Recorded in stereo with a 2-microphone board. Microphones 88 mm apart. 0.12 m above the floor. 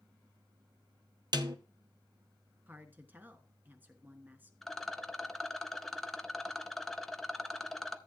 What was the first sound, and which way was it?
A snare drum, 60° right (ahead or behind).